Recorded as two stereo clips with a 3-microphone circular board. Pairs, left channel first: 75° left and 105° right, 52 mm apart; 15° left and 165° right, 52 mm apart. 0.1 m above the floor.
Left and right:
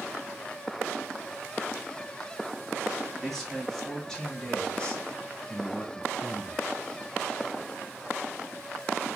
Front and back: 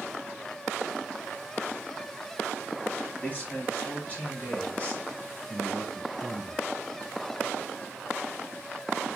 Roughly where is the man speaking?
Ahead.